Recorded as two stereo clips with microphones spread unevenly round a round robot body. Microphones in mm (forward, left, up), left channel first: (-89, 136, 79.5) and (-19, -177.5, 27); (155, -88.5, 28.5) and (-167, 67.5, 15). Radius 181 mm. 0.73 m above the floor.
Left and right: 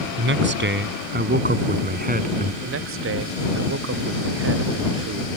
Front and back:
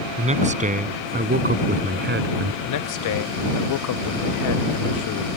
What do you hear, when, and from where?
0.2 s a man speaking: 135° right; by 2.5 s 145° right
2.6 s a man speaking: 50° right